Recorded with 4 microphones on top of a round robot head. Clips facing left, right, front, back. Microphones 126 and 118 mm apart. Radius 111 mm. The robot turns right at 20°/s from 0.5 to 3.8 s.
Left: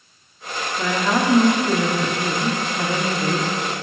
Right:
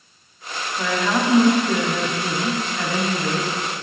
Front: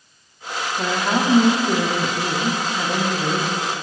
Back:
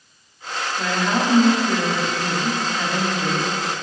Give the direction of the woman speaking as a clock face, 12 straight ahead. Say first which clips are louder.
Left 1 dB, front 1 dB; 11 o'clock.